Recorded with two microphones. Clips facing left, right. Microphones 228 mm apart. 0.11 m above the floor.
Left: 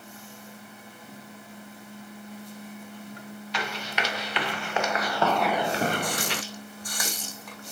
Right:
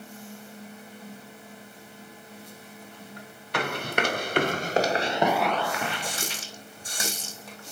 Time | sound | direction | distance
3.5 | running footsteps | 55° right (ahead or behind) | 2 m
6.0 | a running tap | 25° right (ahead or behind) | 3 m